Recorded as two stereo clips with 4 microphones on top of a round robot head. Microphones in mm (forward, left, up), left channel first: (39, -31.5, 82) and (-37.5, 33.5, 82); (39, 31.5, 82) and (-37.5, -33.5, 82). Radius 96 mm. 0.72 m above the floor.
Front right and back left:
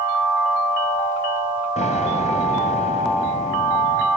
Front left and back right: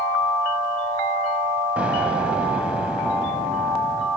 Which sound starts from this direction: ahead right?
An explosion, at 1.8 s.